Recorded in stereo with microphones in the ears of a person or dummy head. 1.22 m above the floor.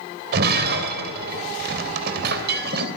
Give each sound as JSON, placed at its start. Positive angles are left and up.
{"t": 0.3, "sound": "breaking glass", "side_deg": -70, "distance_m": 3.0}